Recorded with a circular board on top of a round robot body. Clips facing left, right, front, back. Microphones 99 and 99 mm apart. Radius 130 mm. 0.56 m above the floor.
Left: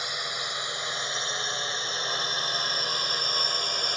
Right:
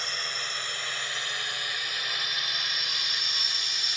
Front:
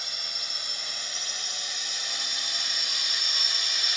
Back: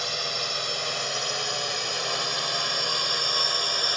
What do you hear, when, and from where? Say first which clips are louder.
0.0 s a drone: left 2 dB, back 11 dB; 170° left; by 4.0 s 135° left